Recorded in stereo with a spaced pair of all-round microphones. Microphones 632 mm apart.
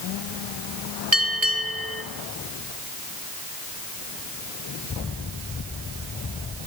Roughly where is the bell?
Right.